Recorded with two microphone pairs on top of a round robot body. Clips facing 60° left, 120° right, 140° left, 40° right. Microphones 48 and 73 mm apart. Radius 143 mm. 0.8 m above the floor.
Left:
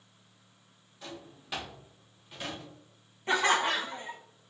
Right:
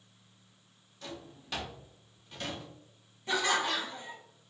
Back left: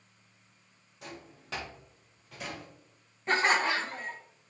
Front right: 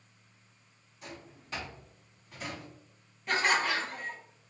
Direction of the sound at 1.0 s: 140° left.